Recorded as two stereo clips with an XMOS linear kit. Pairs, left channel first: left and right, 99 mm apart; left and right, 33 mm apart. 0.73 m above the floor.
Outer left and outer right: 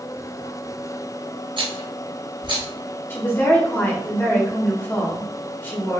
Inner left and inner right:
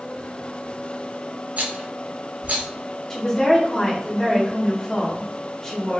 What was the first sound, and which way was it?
A rattle, 55° right (ahead or behind).